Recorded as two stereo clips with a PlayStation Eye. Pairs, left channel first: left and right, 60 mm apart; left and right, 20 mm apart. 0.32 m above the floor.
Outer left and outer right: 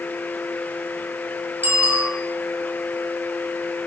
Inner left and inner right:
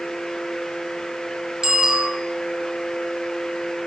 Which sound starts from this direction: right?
A bicycle bell, at 1.6 s.